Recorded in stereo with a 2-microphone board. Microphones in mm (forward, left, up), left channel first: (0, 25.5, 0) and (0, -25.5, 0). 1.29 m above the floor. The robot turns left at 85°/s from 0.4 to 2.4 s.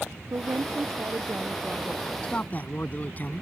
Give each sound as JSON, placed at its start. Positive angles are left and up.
{"t": 0.3, "sound": "a woman speaking", "azimuth_deg": -65}
{"t": 2.2, "sound": "a man speaking", "side_deg": 20}